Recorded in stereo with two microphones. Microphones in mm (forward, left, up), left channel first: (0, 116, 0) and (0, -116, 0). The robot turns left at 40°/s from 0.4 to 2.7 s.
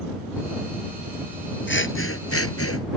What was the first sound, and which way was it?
Scissors, 125° left.